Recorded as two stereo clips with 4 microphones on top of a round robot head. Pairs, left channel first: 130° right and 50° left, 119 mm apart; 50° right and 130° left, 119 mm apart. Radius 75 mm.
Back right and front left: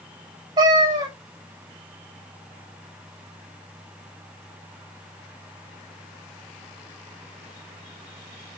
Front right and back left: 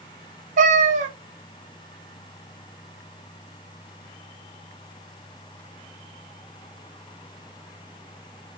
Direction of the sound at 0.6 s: 110° left.